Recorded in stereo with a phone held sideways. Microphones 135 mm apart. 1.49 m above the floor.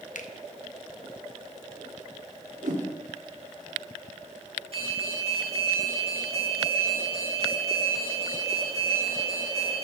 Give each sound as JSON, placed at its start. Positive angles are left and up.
{"t": 0.1, "sound": "a finger snap", "side_deg": 75, "distance_m": 1.2}
{"t": 2.6, "sound": "a whoosh", "side_deg": -80, "distance_m": 3.0}
{"t": 4.7, "sound": "an alarm", "side_deg": -45, "distance_m": 7.0}